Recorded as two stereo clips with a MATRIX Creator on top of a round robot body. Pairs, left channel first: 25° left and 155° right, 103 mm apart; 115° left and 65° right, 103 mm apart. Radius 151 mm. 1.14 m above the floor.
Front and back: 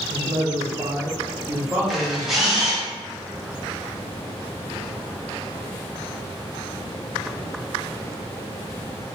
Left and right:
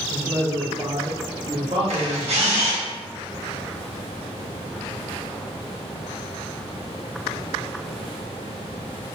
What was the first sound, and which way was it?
A man speaking, 140° right.